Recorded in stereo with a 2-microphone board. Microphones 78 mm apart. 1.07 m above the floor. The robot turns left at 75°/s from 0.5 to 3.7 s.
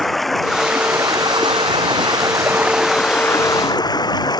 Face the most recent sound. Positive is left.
turn(degrees=120)